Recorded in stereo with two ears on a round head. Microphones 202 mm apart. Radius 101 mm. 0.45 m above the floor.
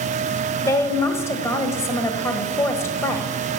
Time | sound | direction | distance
0.6 | a woman speaking | 10° left (ahead or behind) | 1.8 m